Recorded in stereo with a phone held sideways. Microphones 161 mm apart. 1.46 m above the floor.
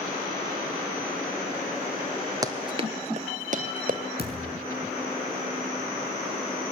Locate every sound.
2.4 s running footsteps: 20° right (ahead or behind), 1.6 m; by 4.0 s 55° right (ahead or behind), 3 m
4.2 s a thud: 75° left (ahead or behind), 5.5 m